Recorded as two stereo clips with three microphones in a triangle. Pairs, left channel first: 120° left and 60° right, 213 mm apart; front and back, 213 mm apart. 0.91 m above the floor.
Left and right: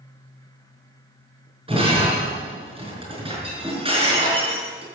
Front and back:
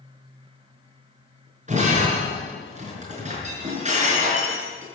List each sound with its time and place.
1.7 s breaking glass: 125° right, 5.5 m